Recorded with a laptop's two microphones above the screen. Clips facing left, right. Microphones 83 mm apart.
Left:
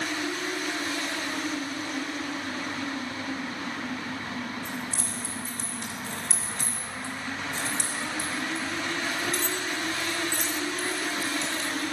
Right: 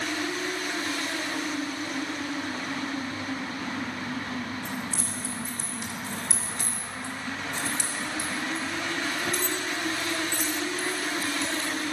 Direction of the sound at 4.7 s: 10° right (ahead or behind).